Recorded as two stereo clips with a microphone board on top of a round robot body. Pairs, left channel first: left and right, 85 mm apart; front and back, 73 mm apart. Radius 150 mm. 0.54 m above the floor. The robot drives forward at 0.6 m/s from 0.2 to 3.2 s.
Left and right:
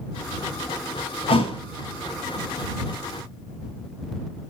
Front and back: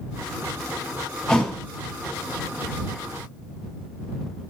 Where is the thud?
80° left, 1.7 m; by 1.6 s 90° left, 1.7 m.